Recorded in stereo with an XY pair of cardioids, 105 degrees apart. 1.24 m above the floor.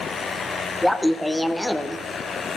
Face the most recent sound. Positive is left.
turn(degrees=5)